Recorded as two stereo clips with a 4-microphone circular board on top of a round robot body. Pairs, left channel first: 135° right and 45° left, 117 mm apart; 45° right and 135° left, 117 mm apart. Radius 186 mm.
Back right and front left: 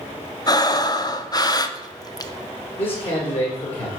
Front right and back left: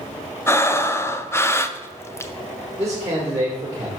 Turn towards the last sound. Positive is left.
turn(degrees=-165)